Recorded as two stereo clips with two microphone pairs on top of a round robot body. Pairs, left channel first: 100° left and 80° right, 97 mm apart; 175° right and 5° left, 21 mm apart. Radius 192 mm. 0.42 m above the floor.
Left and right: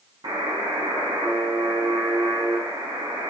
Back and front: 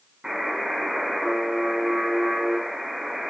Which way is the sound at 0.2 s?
40° right.